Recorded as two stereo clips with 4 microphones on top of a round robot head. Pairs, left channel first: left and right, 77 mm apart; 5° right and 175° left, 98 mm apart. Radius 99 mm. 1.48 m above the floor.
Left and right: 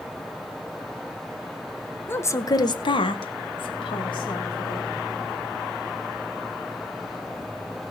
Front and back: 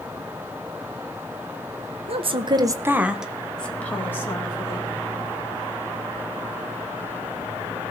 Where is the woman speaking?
155° left, 1.6 m; by 4.9 s 55° left, 3.5 m.